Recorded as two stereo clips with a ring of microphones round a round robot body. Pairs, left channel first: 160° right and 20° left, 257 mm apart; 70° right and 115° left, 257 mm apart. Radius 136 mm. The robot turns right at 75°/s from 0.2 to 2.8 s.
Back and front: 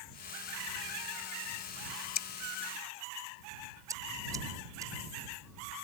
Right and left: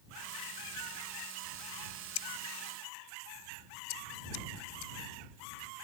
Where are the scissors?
105° right; by 4.9 s 55° right.